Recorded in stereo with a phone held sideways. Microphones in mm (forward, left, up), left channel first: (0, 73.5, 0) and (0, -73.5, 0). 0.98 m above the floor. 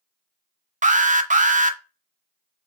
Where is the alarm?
60° right (ahead or behind), 0.5 m.